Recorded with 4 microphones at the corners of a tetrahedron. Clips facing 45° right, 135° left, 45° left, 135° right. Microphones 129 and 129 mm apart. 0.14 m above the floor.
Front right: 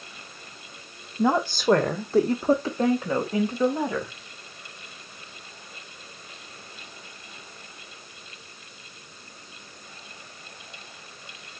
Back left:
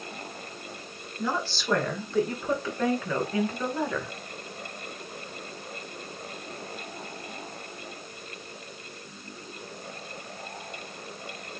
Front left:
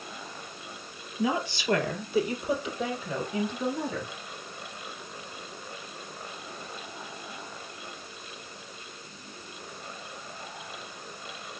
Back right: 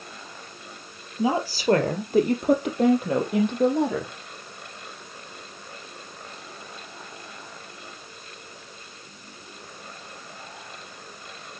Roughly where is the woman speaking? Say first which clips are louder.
Front right 8 dB, back right 4 dB; right.